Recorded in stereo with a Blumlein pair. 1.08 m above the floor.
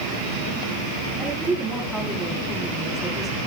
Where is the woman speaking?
10° right, 4.5 m.